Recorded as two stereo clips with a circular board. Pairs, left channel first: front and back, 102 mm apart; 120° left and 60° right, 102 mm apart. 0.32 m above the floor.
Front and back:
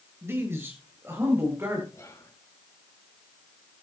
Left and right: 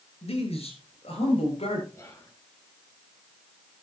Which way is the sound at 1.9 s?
60° left.